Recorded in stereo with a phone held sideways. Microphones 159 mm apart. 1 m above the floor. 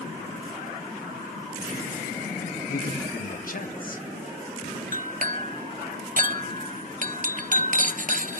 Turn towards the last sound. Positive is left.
turn(degrees=-60)  # may be behind; listen again after turning